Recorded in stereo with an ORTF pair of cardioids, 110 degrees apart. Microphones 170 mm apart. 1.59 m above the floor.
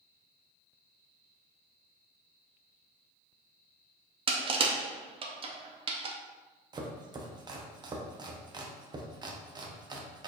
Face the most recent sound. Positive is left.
turn(degrees=-25)